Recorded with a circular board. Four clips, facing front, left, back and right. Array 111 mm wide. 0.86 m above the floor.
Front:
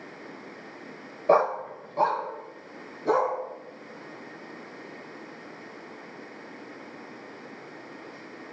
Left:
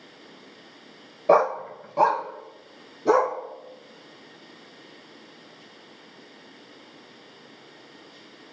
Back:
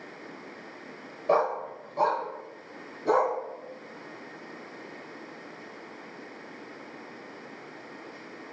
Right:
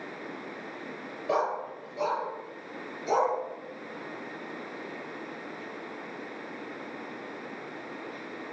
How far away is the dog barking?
About 0.8 m.